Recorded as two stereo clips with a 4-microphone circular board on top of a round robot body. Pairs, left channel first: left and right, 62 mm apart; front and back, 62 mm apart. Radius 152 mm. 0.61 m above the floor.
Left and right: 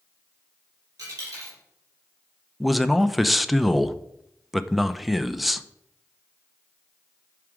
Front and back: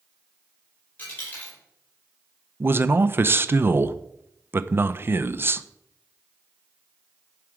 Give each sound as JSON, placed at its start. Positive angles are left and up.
{"t": 1.0, "sound": "a dropped coin", "azimuth_deg": -60, "distance_m": 5.5}
{"t": 2.6, "sound": "a man speaking", "azimuth_deg": 180, "distance_m": 0.7}